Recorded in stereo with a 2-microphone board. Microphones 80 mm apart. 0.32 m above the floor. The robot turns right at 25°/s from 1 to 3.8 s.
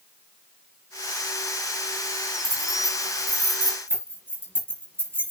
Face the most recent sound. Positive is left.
turn(degrees=-25)  # may be behind; listen again after turning